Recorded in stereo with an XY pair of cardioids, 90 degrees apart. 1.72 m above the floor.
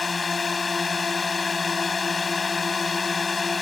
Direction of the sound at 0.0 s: 30° left.